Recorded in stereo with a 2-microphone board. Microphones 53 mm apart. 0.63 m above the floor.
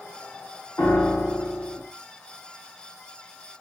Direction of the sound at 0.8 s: 55° left (ahead or behind).